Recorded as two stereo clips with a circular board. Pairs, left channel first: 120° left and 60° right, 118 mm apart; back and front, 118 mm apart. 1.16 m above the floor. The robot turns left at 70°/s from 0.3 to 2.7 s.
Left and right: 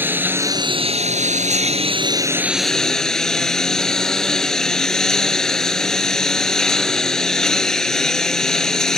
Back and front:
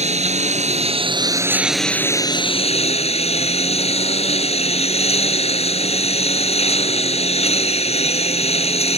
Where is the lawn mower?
15° left; by 9.0 s 155° right.